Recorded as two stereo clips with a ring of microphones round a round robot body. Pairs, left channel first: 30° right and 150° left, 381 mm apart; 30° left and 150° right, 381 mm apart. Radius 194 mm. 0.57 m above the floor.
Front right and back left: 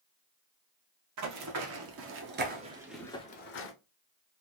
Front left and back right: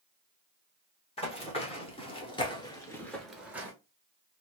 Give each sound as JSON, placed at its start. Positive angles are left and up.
{"t": 1.2, "sound": "running footsteps", "azimuth_deg": 105, "distance_m": 1.2}